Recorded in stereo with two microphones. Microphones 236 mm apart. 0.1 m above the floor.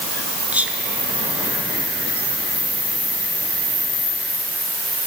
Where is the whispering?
5° right (ahead or behind), 1.2 m.